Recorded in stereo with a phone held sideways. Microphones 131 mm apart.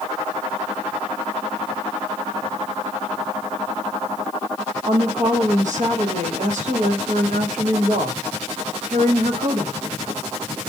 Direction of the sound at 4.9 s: 70° right (ahead or behind).